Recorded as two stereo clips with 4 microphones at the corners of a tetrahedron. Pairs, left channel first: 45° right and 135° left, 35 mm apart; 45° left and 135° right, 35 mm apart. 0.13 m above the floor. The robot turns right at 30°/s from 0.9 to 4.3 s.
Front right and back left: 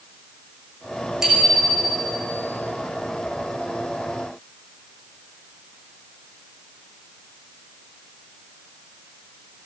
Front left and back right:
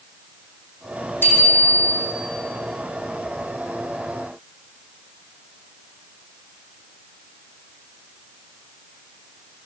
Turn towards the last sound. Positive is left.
turn(degrees=150)